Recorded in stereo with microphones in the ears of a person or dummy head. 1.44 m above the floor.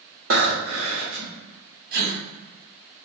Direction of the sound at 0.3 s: 75° right (ahead or behind).